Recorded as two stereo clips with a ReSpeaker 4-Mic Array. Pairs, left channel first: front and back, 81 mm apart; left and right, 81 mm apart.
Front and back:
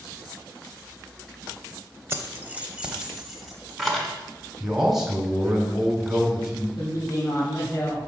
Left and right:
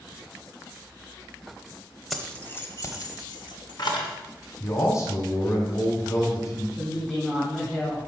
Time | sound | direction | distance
2.1 | keys jangling | straight behind | 0.6 m
4.6 | a man speaking | 95° left | 1.7 m
6.8 | a woman speaking | straight ahead | 1.4 m